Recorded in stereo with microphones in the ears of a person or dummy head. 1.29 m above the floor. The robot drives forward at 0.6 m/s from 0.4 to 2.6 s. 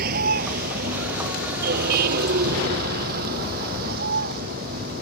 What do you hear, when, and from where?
0.0 s a vehicle: 50° right (ahead or behind); by 5.0 s 55° right (ahead or behind)